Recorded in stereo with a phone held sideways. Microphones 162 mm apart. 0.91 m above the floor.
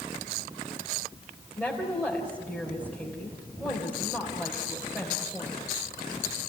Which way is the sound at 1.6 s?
5° right (ahead or behind).